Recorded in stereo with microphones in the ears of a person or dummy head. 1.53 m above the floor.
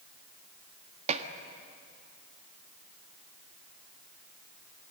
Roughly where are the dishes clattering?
Right.